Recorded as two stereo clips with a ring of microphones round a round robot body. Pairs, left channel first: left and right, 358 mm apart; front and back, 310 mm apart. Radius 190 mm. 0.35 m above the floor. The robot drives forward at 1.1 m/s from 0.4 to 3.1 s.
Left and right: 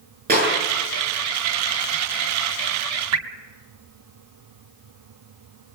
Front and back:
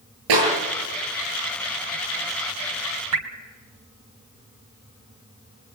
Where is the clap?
155° right, 8 m; by 0.5 s 160° right, 8 m.